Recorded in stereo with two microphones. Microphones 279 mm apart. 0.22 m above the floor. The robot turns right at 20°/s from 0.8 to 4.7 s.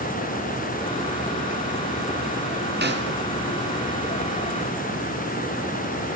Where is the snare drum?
40° right (ahead or behind), 2.5 m.